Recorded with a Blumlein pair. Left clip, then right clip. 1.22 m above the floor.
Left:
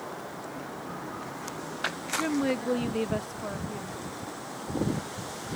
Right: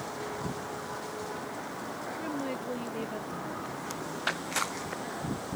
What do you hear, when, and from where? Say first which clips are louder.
2.2 s a woman speaking: left 9 dB; 25° left